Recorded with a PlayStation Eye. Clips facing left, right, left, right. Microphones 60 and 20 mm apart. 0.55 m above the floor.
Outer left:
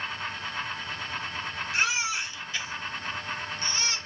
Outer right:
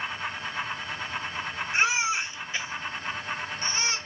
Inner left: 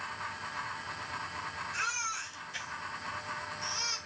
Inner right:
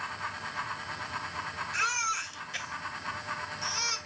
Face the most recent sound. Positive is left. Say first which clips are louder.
# outer right 3 dB, inner right 6 dB
turn(degrees=-25)  # may be behind; listen again after turning